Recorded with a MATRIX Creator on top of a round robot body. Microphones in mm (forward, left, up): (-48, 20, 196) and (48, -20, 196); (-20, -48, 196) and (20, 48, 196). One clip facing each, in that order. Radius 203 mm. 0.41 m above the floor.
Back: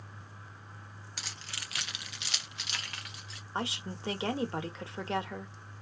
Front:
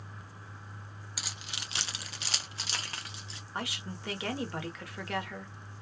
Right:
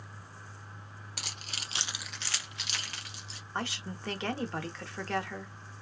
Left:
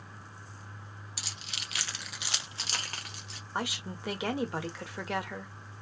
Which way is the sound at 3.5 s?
135° left.